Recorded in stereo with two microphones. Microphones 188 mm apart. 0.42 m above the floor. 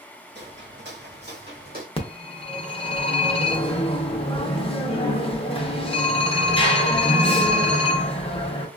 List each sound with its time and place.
0.3 s footsteps: 65° right (ahead or behind), 1.0 m; by 1.9 s 50° right (ahead or behind), 1.1 m
2.0 s a phone ringing: 30° left (ahead or behind), 0.7 m